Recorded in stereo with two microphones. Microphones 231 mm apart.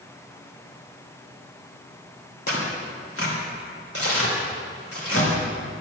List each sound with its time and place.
2.5 s tearing paper: 75° left (ahead or behind), 2.5 m